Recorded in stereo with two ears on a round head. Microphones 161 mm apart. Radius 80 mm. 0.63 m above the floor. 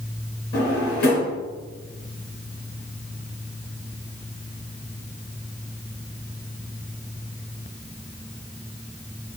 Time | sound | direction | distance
0.5 | a drawer | 60° left (ahead or behind) | 3 m